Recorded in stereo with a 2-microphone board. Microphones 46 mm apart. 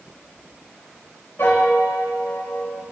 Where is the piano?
65° left (ahead or behind), 1.8 m.